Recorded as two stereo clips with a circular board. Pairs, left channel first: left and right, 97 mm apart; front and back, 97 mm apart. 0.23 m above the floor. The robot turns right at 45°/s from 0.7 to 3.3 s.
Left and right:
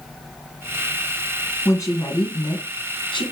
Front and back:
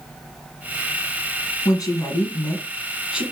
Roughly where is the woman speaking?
Ahead left.